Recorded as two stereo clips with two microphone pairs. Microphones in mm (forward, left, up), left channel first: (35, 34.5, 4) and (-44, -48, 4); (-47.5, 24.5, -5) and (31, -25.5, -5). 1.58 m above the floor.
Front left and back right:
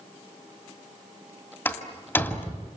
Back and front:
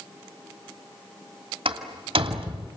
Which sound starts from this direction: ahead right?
A door slam, at 1.6 s.